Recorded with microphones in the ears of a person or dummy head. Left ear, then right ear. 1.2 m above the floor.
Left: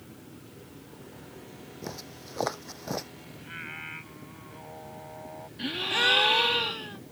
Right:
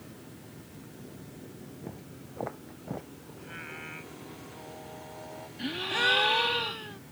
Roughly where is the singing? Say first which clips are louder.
Left 3 dB; centre.